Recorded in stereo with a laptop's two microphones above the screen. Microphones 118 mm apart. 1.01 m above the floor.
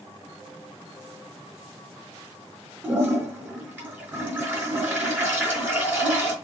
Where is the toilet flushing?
20° right (ahead or behind), 4 m.